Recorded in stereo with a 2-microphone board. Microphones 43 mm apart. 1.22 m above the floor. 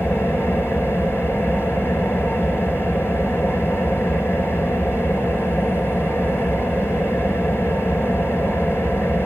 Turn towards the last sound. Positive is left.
turn(degrees=60)  # may be behind; listen again after turning